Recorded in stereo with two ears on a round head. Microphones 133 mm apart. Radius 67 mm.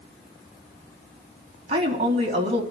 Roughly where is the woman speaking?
Right.